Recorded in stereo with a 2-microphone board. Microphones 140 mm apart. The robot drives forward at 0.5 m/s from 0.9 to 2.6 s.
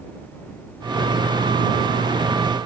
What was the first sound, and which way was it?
Only background noise.